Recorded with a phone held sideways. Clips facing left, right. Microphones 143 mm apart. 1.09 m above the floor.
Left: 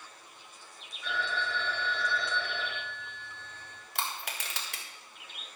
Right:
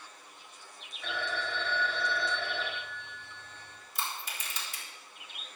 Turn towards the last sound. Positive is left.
turn(degrees=60)  # may be behind; listen again after turning